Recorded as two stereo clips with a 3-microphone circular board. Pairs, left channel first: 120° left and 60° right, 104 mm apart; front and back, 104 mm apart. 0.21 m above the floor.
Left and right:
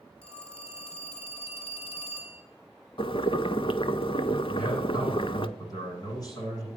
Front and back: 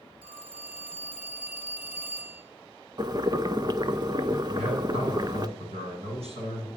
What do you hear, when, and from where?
0.2 s a phone ringing: 100° left, 2.5 m
3.0 s boiling: 140° left, 0.5 m
4.5 s a man speaking: 170° left, 8.5 m